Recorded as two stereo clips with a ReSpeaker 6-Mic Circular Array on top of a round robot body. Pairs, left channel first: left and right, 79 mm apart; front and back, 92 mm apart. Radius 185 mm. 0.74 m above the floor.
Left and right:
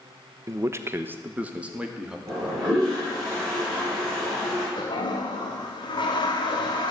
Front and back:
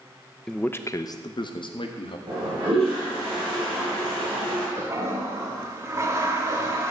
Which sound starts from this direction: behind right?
A toilet flushing, at 2.3 s.